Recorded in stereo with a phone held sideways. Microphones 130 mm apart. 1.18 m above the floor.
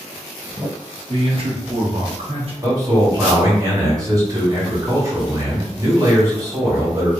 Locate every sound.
1.1 s a man speaking: 50° right (ahead or behind), 1.1 m
2.6 s a man speaking: 25° right (ahead or behind), 1.7 m